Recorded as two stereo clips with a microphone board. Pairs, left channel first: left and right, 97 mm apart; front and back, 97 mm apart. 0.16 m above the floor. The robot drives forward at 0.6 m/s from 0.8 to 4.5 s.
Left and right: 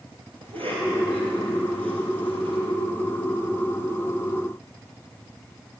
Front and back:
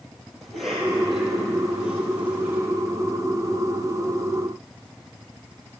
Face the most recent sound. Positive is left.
turn(degrees=-120)